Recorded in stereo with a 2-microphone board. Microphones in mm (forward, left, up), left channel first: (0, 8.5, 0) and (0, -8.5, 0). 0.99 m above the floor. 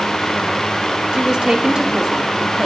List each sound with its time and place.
1.1 s a woman speaking: 60° right (ahead or behind), 1.5 m; by 2.7 s 45° right (ahead or behind), 3 m